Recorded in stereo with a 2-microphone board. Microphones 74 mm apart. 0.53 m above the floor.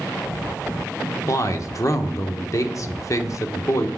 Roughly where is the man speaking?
Left.